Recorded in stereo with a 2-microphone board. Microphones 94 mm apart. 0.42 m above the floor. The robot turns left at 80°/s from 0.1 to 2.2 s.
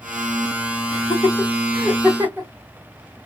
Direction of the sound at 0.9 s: 50° left (ahead or behind).